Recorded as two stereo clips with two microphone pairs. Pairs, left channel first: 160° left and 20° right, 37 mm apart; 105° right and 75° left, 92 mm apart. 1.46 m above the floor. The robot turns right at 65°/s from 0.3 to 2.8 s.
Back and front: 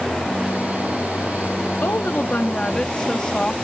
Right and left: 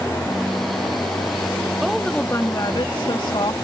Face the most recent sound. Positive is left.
turn(degrees=-135)